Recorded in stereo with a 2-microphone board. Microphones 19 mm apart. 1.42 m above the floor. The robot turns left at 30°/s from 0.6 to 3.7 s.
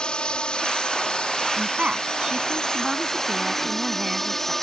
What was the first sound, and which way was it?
A drone, 110° left.